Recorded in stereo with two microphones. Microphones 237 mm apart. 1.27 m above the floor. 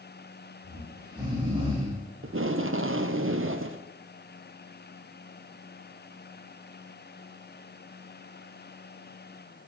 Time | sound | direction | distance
0.6 | snoring | 25° right (ahead or behind) | 6 m
2.2 | tape being pulled | 60° right (ahead or behind) | 0.6 m